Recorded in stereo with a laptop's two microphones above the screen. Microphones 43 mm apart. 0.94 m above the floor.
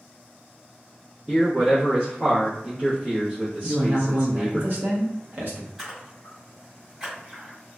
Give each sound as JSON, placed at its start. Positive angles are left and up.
{"t": 1.3, "sound": "a man speaking", "side_deg": -5, "distance_m": 1.1}
{"t": 3.6, "sound": "a man speaking", "side_deg": -50, "distance_m": 0.8}
{"t": 5.8, "sound": "a splash", "side_deg": -10, "distance_m": 1.9}